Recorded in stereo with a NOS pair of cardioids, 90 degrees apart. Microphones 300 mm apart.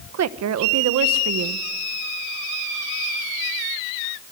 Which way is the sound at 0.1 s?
60° right.